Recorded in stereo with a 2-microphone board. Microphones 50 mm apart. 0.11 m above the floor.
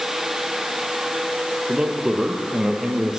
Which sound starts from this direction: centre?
A man speaking, at 1.7 s.